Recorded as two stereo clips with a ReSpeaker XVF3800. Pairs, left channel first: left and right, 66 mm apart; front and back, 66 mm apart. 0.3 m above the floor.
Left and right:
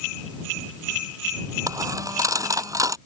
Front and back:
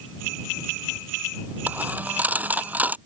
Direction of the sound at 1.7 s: 115° right.